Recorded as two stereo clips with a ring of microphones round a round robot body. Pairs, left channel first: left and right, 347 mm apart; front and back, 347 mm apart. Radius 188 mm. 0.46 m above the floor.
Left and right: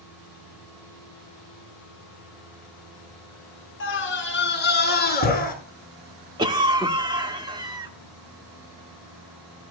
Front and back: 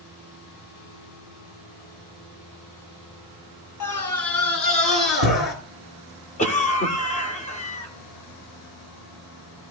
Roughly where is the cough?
Ahead right.